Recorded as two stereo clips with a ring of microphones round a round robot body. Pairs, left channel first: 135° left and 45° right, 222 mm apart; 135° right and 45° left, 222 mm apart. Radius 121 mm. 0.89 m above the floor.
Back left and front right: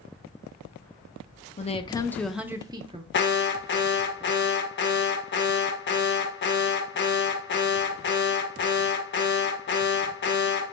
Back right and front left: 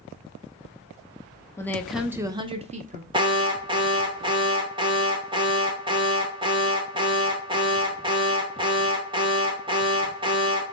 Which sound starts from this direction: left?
An alarm, at 3.1 s.